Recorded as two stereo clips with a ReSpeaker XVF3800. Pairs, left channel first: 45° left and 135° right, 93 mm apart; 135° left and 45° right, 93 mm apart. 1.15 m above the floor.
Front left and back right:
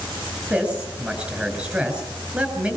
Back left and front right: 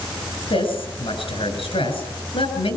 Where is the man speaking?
150° left, 6 m.